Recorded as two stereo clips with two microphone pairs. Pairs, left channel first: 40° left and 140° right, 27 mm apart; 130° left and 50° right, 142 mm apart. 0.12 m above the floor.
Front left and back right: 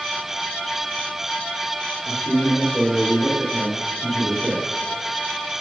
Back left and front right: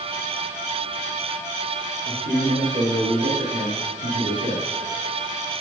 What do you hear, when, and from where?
2.0 s a man speaking: 40° right, 5.5 m; by 4.7 s 60° right, 6 m